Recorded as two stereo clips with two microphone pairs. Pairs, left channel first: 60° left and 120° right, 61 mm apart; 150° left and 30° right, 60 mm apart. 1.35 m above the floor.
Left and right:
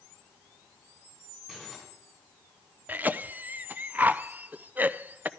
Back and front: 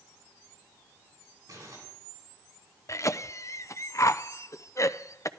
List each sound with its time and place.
1.5 s crumpling: 35° right, 7 m
2.9 s a cough: straight behind, 0.6 m